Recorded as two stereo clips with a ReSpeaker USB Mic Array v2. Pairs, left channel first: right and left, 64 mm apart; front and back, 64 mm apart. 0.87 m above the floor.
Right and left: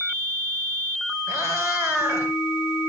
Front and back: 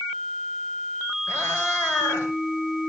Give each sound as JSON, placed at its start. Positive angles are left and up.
{"t": 1.3, "sound": "a cat meowing", "azimuth_deg": 60, "distance_m": 7.5}